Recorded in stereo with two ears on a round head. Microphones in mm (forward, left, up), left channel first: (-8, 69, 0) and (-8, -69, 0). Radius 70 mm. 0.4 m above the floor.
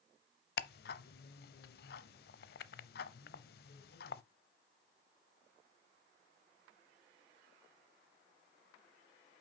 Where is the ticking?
70° left (ahead or behind), 0.6 m.